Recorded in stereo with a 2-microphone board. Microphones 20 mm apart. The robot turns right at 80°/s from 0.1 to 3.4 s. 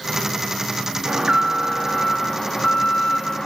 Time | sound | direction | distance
1.1 | an alarm | 70° right | 0.6 m